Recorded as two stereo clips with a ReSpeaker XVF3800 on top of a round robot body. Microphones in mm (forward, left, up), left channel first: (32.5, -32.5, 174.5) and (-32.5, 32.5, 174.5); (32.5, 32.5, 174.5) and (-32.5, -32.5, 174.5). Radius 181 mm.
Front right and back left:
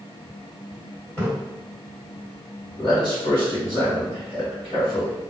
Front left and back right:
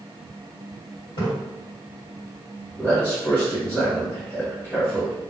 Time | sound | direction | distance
1.2 | a splash | 20° left | 1.9 m
2.8 | a man speaking | 20° right | 1.9 m